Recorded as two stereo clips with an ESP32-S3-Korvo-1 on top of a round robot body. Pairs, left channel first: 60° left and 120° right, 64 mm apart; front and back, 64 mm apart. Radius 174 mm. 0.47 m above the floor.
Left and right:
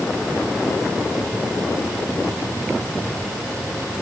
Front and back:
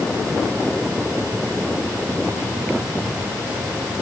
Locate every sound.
Only background noise.